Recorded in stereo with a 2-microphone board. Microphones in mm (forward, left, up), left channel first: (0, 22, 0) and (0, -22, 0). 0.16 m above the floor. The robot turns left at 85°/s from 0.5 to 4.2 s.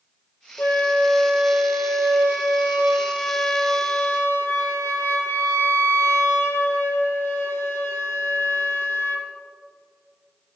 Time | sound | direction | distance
0.6 | a flute | 55° left | 1.2 m